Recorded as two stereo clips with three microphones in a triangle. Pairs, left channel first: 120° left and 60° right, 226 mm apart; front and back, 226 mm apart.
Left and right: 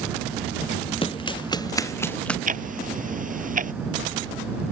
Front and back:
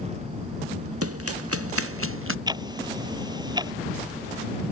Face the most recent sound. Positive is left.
turn(degrees=-110)